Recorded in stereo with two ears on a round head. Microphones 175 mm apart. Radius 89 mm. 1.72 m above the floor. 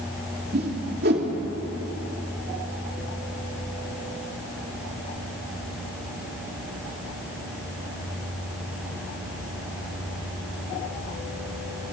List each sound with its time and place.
0.5 s a whoosh: 50° right (ahead or behind), 3 m